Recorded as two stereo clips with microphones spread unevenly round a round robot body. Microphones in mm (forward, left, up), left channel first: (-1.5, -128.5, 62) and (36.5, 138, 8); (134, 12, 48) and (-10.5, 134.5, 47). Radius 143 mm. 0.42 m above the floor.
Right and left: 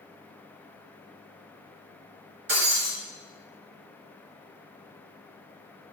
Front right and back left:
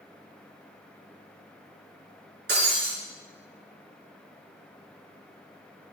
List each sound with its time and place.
2.5 s breaking glass: 115° left, 4 m